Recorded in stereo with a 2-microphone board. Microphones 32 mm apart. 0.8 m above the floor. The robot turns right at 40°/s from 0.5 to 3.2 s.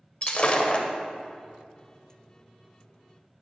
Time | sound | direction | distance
0.2 | breaking glass | 40° left (ahead or behind) | 0.6 m